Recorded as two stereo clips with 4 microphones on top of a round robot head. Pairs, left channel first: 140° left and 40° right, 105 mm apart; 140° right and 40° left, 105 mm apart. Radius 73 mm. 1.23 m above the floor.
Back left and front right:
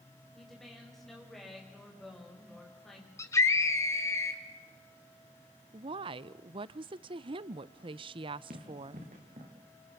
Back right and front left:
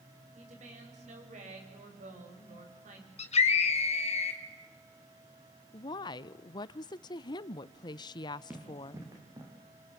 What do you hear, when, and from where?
0.3 s a woman speaking: 50° left, 7 m
3.2 s a scream: 160° right, 3.5 m
5.7 s a woman speaking: 85° right, 0.6 m
8.5 s running footsteps: 30° right, 4 m; by 9.5 s 15° right, 5 m